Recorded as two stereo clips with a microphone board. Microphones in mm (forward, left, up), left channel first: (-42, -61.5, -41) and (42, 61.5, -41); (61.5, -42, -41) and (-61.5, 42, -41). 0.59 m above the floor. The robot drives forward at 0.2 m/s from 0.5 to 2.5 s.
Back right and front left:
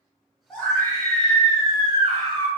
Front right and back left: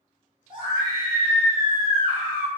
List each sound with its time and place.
0.5 s a scream: 165° left, 1.2 m; by 2.5 s 170° left, 1.5 m